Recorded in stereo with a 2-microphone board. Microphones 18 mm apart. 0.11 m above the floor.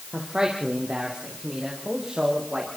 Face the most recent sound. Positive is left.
turn(degrees=-55)  # may be behind; listen again after turning